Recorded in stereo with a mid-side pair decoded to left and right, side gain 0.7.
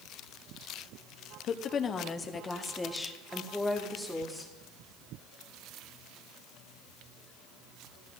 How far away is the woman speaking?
About 1.0 m.